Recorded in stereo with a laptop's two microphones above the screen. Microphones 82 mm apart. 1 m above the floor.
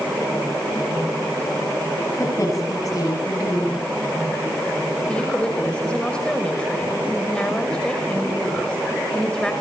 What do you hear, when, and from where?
2.2 s a woman speaking: 45° left (ahead or behind), 9.5 m
5.1 s a woman speaking: 10° left (ahead or behind), 5.5 m